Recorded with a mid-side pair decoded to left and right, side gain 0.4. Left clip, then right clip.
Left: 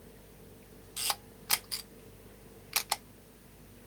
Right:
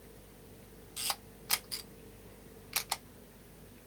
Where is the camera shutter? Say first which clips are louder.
Left 3 dB; 25° left, 0.6 m.